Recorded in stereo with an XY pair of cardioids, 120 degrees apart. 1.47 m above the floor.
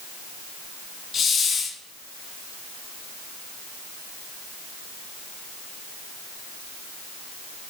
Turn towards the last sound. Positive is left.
turn(degrees=40)